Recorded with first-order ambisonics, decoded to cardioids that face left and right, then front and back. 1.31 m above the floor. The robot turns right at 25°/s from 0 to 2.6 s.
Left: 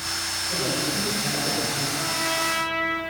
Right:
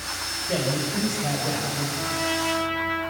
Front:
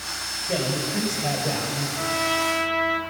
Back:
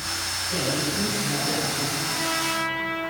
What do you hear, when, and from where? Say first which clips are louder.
0.5 s a man speaking: right 1 dB, front 1 dB; 45° right, 7 m; by 1.9 s 10° right, 7 m
2.0 s a trumpet: even, front 2 dB; straight ahead, 4.5 m; by 3.0 s 15° left, 4.5 m